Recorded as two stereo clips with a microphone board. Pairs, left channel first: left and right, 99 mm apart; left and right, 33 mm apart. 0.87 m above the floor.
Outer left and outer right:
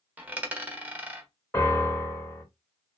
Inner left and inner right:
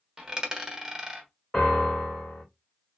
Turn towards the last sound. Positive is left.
turn(degrees=25)  # may be behind; listen again after turning